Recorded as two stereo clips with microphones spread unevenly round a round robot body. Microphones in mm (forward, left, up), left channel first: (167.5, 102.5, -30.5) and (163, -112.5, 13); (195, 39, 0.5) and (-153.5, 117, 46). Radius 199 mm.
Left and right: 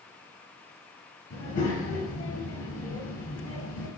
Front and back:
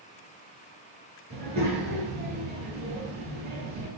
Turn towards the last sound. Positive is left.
turn(degrees=105)